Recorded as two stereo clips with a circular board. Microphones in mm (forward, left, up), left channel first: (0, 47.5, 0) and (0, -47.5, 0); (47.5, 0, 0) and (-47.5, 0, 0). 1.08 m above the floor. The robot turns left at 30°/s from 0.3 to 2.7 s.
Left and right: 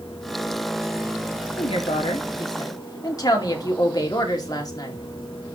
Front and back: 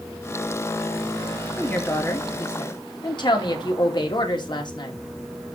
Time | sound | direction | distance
1.6 | a woman speaking | 75° left | 2.5 m